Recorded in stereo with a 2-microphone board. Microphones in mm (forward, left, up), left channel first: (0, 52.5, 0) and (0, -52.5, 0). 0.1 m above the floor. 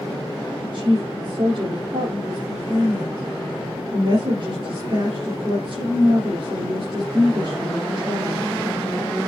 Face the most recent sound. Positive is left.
turn(degrees=-45)  # may be behind; listen again after turning